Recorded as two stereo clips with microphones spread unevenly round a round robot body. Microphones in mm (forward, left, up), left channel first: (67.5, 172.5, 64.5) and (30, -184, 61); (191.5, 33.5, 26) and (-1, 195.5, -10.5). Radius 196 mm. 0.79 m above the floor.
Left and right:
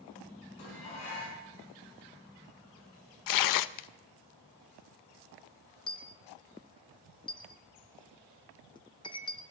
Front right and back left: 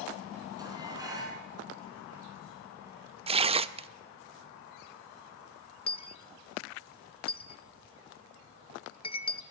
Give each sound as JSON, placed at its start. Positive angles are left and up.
{"t": 0.6, "sound": "dishes clattering", "azimuth_deg": 65, "distance_m": 5.5}
{"t": 3.3, "sound": "tearing paper", "azimuth_deg": 85, "distance_m": 0.5}
{"t": 5.9, "sound": "a dropped coin", "azimuth_deg": 10, "distance_m": 0.6}